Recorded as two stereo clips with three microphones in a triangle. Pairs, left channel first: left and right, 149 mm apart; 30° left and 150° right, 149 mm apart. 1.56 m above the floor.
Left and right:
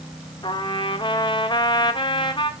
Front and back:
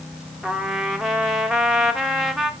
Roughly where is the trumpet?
Behind left.